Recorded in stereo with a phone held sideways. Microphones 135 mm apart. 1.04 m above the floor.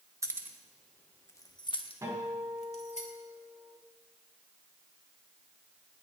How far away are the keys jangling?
About 1.1 m.